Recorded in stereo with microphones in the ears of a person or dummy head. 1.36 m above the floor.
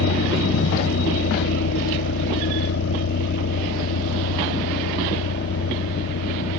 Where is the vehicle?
70° left (ahead or behind); by 6.6 s 65° left (ahead or behind).